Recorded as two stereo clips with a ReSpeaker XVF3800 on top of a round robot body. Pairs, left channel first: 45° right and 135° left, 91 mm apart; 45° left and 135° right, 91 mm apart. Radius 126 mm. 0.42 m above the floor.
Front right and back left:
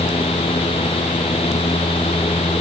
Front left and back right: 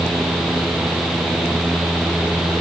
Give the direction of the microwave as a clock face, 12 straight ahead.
I don't hear a microwave.